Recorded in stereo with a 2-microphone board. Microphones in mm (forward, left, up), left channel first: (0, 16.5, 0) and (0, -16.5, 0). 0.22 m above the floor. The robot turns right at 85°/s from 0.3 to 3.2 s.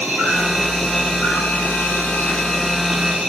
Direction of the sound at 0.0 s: 45° right.